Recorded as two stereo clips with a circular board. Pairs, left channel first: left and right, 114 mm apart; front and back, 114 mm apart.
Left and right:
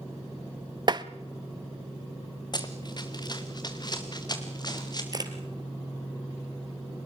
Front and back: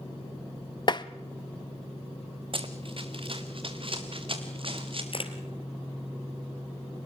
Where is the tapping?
45° right, 0.7 m.